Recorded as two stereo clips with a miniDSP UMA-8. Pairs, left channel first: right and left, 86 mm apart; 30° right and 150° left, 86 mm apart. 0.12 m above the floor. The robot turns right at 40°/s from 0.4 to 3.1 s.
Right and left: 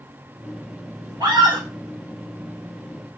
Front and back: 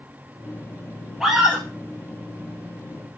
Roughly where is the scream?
Ahead left.